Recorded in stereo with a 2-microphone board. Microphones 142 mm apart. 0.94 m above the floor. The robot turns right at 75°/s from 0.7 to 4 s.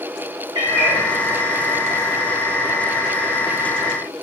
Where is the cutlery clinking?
No cutlery clinking in this recording.